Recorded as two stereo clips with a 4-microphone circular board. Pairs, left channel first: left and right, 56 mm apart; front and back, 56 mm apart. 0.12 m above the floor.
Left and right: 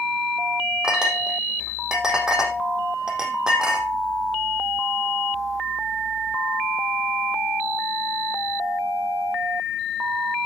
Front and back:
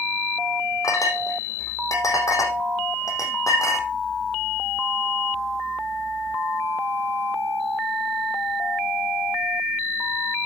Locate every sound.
0.8 s a clink: 15° right, 4 m